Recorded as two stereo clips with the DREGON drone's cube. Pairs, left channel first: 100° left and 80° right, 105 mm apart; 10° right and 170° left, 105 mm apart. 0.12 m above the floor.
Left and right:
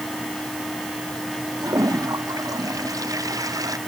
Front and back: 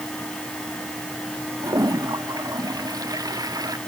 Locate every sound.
1.6 s a toilet flushing: 135° right